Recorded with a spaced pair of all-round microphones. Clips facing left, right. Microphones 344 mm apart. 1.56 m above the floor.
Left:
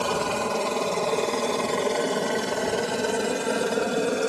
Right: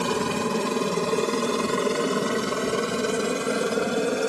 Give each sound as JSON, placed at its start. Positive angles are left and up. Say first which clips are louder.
{"t": 0.0, "sound": "a helicopter", "louder": "right 2 dB", "side_deg": -30}